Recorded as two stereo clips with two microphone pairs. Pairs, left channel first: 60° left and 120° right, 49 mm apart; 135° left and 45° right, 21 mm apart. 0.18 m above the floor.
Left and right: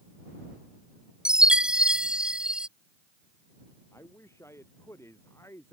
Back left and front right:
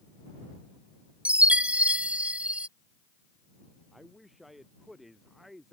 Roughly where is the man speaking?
Ahead left.